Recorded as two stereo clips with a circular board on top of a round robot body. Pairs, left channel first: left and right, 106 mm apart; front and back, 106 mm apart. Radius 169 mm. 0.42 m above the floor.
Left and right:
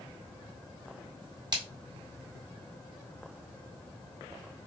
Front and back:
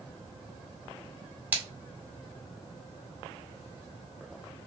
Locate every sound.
1.5 s a splash: 115° right, 2.0 m